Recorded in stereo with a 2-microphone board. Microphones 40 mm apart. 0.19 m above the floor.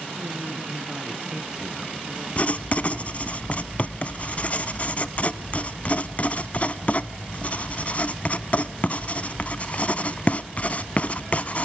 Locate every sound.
0.1 s a woman speaking: 20° right (ahead or behind), 2 m
2.4 s writing: 40° left (ahead or behind), 0.7 m